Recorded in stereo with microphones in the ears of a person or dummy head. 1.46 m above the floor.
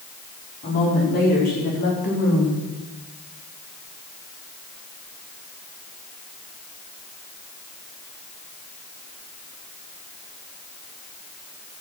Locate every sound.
0.6 s a woman speaking: 45° left (ahead or behind), 5 m; by 2.6 s 50° left (ahead or behind), 3.5 m